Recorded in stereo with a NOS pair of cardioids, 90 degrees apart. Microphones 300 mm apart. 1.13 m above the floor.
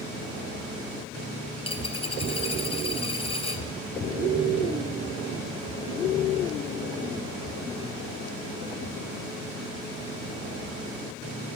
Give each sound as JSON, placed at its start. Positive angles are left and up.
{"t": 1.6, "sound": "a dropped coin", "azimuth_deg": 20, "distance_m": 2.0}